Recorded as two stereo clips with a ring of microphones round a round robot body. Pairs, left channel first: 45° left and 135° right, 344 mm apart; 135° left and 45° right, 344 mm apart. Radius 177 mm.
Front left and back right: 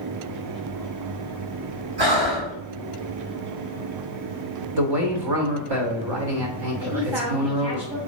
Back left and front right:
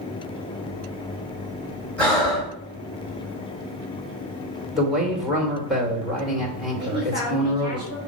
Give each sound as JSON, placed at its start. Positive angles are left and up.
{"t": 2.0, "sound": "breathing", "azimuth_deg": -140, "distance_m": 3.0}
{"t": 4.8, "sound": "a man speaking", "azimuth_deg": -135, "distance_m": 2.0}
{"t": 6.8, "sound": "a man speaking", "azimuth_deg": -120, "distance_m": 2.5}